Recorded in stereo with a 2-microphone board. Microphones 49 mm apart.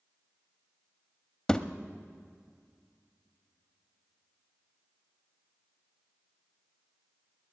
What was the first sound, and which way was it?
A thud, 15° left (ahead or behind).